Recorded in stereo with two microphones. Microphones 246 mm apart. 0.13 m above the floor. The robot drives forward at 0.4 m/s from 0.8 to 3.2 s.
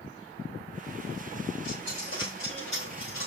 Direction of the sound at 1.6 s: 60° right (ahead or behind).